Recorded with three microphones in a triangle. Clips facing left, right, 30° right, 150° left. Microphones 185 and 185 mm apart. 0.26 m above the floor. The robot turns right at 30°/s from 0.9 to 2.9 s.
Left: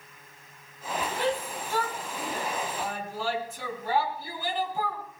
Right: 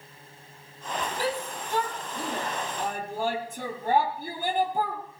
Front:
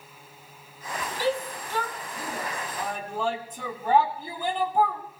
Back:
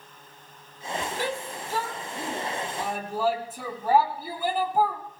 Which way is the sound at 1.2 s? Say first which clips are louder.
Left 3 dB, front 4 dB; 175° right.